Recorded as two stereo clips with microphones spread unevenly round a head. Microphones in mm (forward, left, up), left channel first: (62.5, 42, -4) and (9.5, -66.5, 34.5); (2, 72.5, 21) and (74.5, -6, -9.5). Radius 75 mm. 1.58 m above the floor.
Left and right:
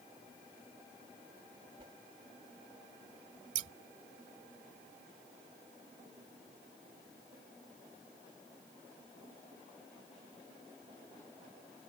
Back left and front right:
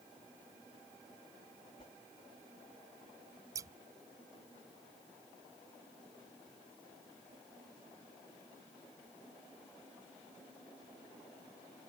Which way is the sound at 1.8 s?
175° right.